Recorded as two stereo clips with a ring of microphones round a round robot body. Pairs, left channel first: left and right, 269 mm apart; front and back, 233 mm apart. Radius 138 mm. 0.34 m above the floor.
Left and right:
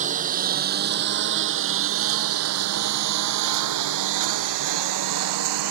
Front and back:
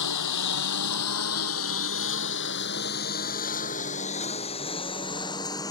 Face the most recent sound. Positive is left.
turn(degrees=-80)